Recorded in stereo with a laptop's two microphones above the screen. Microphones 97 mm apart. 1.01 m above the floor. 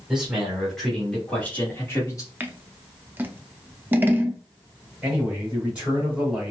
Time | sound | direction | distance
0.1 | a man speaking | 5° right (ahead or behind) | 2 m
2.4 | scissors | 20° right (ahead or behind) | 0.5 m
5.0 | a man speaking | 10° right (ahead or behind) | 2.5 m